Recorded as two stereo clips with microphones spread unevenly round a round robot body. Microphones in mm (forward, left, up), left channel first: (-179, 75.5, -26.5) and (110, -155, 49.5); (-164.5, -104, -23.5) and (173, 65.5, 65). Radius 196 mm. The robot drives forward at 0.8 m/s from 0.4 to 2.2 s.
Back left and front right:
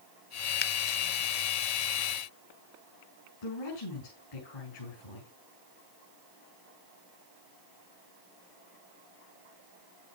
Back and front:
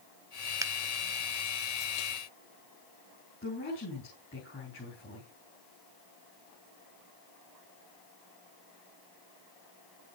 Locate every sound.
0.6 s a finger snap: 120° left, 0.6 m; by 0.7 s 130° left, 0.6 m
3.4 s a woman speaking: 145° left, 7.5 m